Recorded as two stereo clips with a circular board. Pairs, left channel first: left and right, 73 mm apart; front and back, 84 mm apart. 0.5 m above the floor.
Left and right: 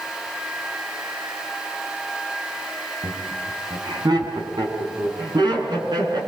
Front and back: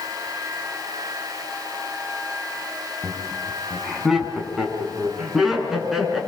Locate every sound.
3.0 s laughter: 90° right, 5 m; by 6.2 s 95° right, 7.5 m